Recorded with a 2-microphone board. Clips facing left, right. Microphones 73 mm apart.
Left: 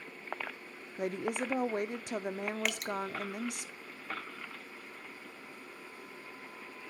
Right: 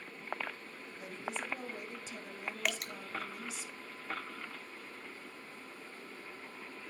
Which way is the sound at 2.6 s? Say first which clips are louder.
Left 2 dB; centre (ahead or behind).